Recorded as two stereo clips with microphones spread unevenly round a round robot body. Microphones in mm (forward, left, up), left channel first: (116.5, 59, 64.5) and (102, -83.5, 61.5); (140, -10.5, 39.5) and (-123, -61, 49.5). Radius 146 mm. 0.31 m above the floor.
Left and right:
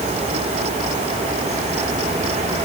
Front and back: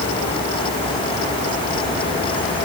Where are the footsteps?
I don't hear footsteps.